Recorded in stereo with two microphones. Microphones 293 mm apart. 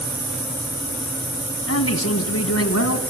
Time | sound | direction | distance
1.7 | a man speaking | 55° left (ahead or behind) | 2.5 m